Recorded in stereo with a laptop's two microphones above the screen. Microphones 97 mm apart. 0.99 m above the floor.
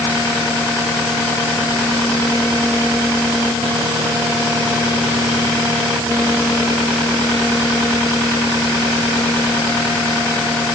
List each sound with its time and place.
Only background noise.